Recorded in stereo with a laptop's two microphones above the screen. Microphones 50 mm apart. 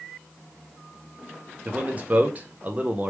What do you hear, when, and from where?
1.6 s a man speaking: 30° right (ahead or behind), 0.7 m